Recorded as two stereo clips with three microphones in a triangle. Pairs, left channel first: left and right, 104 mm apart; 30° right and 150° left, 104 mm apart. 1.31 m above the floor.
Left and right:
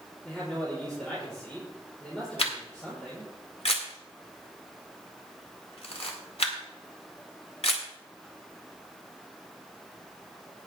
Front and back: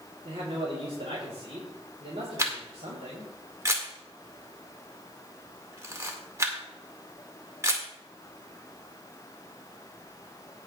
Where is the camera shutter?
90° left, 1.9 m.